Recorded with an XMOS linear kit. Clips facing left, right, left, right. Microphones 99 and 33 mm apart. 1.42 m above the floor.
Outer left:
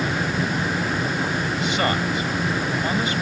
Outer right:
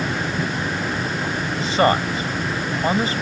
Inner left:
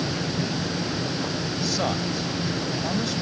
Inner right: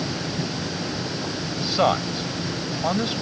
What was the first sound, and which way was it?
A man speaking, 35° right (ahead or behind).